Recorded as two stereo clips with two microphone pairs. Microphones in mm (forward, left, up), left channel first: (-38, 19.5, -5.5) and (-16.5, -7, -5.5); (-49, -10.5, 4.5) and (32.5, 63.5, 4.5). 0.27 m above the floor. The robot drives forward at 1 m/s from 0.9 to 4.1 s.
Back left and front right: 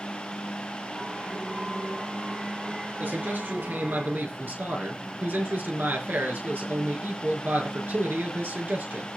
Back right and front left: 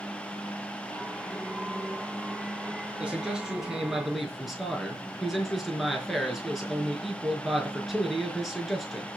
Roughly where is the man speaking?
Ahead right.